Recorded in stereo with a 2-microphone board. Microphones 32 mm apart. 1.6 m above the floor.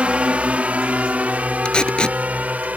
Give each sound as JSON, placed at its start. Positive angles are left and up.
{"t": 0.0, "sound": "a drone", "side_deg": -40}
{"t": 1.6, "sound": "tape being pulled", "side_deg": 30}